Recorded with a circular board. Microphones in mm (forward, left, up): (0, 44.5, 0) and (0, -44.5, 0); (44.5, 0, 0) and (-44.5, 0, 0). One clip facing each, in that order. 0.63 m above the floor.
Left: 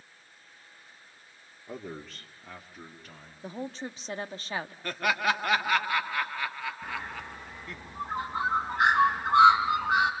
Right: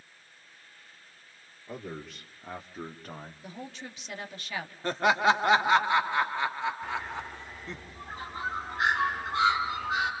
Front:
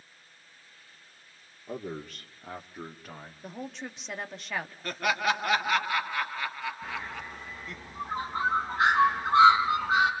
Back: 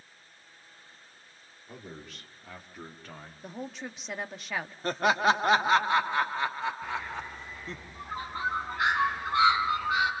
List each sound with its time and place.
1.7 s a man speaking: 15° left, 1.8 m; by 3.3 s 90° right, 1.7 m
3.4 s a woman speaking: 90° left, 1.3 m
4.8 s laughter: 140° right, 1.3 m
6.8 s a bird: 65° left, 5 m